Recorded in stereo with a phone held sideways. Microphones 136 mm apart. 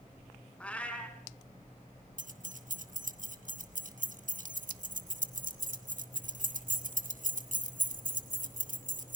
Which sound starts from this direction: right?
Keys jangling, at 2.2 s.